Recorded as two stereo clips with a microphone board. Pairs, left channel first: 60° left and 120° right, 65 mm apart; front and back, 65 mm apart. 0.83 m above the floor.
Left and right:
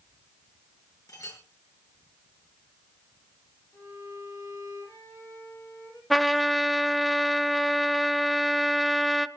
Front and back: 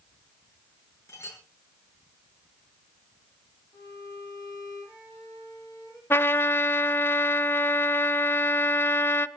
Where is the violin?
25° left, 9.5 m.